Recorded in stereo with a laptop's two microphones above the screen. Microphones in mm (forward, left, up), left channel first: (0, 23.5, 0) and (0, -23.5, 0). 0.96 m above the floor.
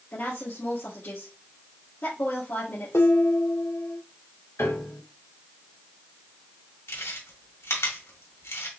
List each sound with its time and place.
0.1 s a woman speaking: 50° left (ahead or behind), 1.6 m
2.9 s dishes clattering: 80° left, 1.6 m
4.6 s a piano: 70° left (ahead or behind), 2.5 m
6.9 s chewing: 75° left (ahead or behind), 1.7 m